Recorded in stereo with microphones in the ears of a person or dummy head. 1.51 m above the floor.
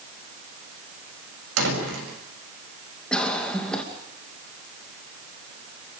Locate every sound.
1.6 s a door slam: 85° right, 6.5 m
3.1 s a cough: 5° left (ahead or behind), 2.5 m